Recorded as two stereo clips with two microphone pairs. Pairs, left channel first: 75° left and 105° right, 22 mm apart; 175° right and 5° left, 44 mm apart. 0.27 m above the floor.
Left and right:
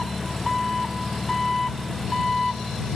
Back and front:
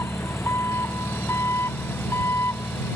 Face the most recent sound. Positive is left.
turn(degrees=165)